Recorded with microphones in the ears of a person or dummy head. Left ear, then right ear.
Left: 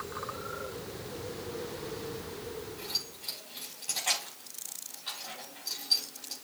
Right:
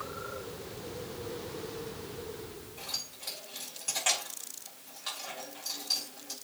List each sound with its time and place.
2.8 s keys jangling: 55° right (ahead or behind), 4.5 m